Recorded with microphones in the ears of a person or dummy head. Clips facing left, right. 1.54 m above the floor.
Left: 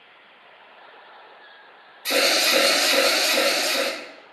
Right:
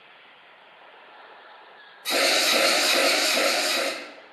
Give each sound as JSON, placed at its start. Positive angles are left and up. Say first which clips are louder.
{"t": 2.0, "sound": "an alarm", "louder": "left 2 dB", "side_deg": 65, "distance_m": 1.7}